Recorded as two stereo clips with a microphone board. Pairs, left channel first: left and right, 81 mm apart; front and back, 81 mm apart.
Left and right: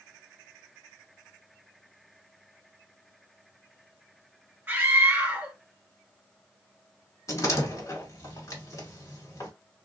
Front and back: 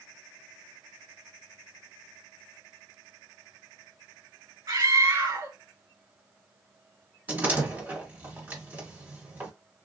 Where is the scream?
155° right, 1.9 m.